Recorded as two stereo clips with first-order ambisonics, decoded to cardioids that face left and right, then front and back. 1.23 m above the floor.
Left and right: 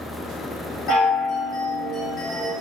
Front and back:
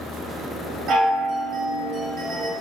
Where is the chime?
135° left, 1.8 m.